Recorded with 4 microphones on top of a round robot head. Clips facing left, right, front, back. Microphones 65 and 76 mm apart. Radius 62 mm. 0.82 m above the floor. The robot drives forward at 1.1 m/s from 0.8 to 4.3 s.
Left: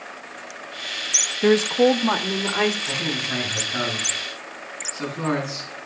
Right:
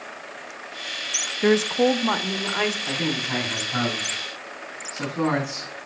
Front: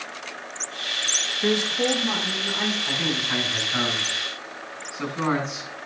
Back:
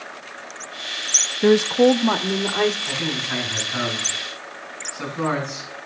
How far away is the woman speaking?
About 0.6 m.